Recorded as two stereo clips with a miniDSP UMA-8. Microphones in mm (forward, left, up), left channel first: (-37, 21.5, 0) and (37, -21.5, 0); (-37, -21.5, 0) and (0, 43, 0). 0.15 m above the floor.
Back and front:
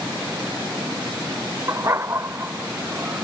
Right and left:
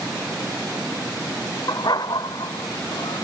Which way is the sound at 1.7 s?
90° right.